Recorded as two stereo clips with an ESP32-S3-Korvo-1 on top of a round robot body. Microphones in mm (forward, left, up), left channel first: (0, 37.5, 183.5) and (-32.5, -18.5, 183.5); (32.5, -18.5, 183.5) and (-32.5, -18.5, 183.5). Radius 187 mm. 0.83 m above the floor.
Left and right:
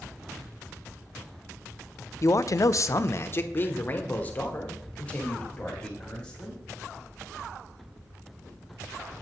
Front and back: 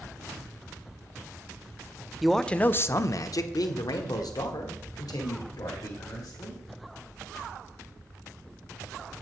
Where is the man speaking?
90° left, 0.6 m; by 6.6 s 15° right, 2.5 m.